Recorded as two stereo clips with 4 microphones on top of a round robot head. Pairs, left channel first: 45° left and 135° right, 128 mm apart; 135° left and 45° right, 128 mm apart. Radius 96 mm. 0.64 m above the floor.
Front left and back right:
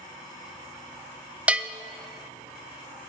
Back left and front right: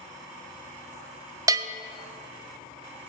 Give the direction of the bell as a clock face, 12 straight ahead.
2 o'clock.